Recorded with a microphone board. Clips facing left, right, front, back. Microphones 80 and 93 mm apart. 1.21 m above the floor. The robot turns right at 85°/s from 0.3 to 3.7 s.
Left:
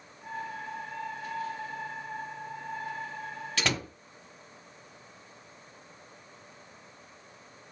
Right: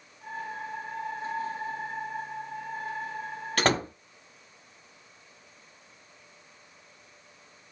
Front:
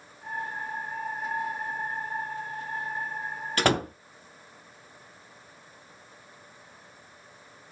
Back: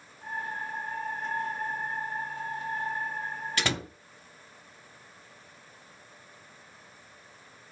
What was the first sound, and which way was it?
A door slam, 45° right.